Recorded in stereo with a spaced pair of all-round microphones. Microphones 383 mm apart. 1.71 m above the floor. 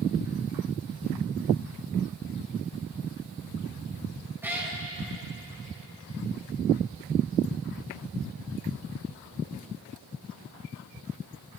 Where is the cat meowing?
5° right (ahead or behind), 0.9 m.